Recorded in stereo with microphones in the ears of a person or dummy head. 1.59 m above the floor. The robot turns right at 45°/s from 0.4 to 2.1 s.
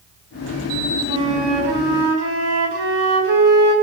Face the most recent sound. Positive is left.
turn(degrees=-110)